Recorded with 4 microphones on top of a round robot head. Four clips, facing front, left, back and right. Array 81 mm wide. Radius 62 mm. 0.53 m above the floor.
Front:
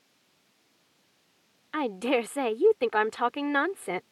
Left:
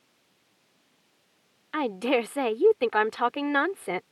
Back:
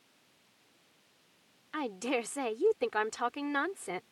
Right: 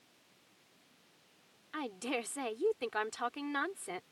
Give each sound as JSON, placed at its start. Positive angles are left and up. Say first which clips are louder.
{"t": 1.7, "sound": "a woman speaking", "louder": "left 13 dB, front 7 dB", "azimuth_deg": 60}